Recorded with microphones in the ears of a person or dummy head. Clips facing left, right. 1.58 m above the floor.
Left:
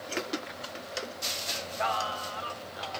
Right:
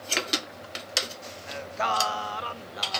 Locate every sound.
1.5 s singing: 50° right (ahead or behind), 0.8 m